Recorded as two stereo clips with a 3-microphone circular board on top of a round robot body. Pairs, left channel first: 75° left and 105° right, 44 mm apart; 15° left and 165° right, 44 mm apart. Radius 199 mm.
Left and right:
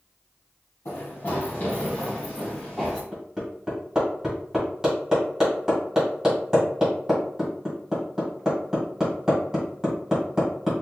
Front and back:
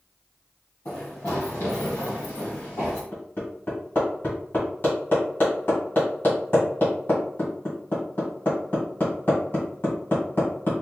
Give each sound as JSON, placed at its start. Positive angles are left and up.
{"t": 0.8, "sound": "running footsteps", "azimuth_deg": 50, "distance_m": 1.2}
{"t": 3.1, "sound": "hammering", "azimuth_deg": -30, "distance_m": 1.8}